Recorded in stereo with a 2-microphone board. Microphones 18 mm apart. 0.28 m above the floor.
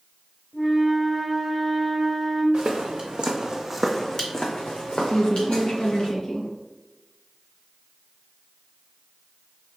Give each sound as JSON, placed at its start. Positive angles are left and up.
{"t": 0.5, "sound": "a flute", "side_deg": -20, "distance_m": 1.1}
{"t": 2.5, "sound": "footsteps", "side_deg": -60, "distance_m": 1.4}
{"t": 5.1, "sound": "a woman speaking", "side_deg": 45, "distance_m": 1.9}